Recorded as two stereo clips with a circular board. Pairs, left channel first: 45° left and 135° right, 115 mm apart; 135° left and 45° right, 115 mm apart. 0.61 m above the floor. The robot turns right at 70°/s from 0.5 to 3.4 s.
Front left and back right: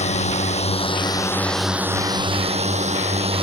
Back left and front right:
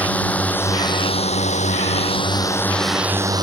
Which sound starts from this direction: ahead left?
A drone, at 0.0 s.